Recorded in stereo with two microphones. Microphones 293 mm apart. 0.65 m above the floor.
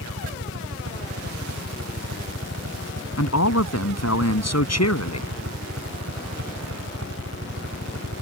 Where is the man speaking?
60° left (ahead or behind).